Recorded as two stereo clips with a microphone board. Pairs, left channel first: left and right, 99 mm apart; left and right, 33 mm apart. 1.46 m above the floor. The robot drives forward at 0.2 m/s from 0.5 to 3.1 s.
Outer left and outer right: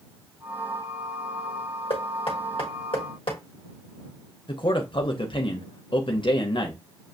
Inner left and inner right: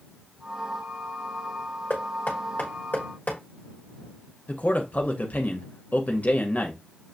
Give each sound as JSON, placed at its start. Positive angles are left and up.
{"t": 1.9, "sound": "knocking", "side_deg": 70, "distance_m": 1.4}
{"t": 4.5, "sound": "a man speaking", "side_deg": 55, "distance_m": 0.7}